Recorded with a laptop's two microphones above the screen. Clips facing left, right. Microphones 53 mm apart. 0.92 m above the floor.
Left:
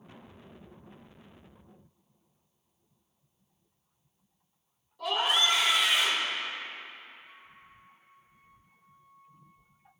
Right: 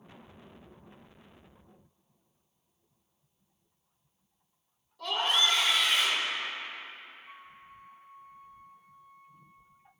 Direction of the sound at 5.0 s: 5° left (ahead or behind).